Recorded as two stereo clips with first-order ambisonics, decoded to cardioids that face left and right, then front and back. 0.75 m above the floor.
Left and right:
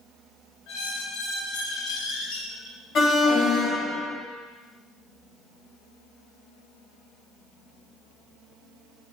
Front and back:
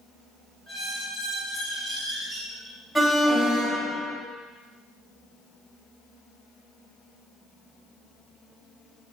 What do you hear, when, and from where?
0.7 s a squeak: 80° left, 2.5 m
3.0 s an alarm: 60° left, 2.0 m